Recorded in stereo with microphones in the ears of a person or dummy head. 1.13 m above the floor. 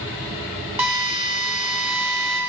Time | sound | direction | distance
0.8 | a drill | 15° right (ahead or behind) | 1.6 m